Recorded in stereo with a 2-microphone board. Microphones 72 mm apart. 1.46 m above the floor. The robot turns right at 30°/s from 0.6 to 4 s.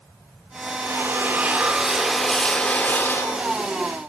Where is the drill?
40° right, 3 m; by 3.7 s 45° left, 3 m.